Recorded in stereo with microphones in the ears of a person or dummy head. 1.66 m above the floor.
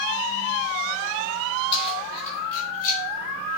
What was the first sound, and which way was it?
Keys jangling, 30° left (ahead or behind).